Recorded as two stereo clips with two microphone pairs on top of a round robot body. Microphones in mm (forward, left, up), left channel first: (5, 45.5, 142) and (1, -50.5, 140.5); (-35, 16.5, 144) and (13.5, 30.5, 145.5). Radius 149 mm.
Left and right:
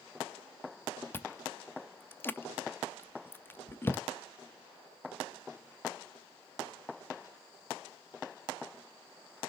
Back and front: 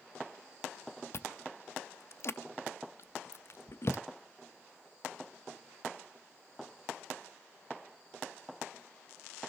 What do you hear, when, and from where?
1.1 s chewing: 155° left, 0.5 m